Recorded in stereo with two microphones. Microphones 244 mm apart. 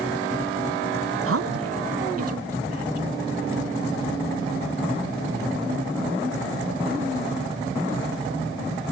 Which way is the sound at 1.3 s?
60° right (ahead or behind).